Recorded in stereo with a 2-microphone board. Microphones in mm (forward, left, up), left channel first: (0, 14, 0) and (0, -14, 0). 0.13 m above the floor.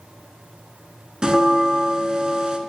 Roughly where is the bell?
Right.